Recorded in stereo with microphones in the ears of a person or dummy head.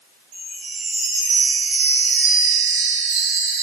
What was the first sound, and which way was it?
A chime, 40° right (ahead or behind).